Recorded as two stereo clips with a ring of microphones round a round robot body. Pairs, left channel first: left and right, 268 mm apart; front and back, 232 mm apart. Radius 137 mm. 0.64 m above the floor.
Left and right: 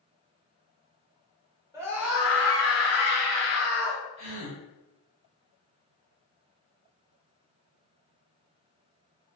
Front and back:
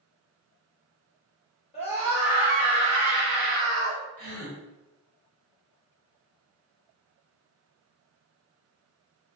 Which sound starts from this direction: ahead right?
A scream, at 1.7 s.